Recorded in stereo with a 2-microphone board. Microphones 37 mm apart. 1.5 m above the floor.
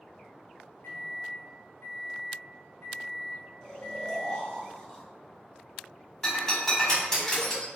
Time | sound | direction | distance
0.8 | a microwave | 80° left | 0.7 m
3.6 | snoring | 20° left (ahead or behind) | 1.2 m
6.2 | breaking glass | 20° left (ahead or behind) | 1.6 m